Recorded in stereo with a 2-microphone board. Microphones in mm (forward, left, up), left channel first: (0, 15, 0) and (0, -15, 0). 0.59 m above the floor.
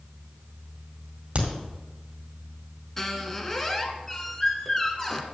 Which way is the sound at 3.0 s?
10° left (ahead or behind).